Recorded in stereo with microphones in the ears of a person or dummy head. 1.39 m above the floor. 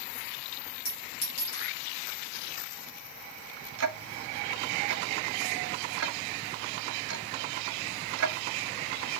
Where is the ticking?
65° right (ahead or behind), 0.5 m.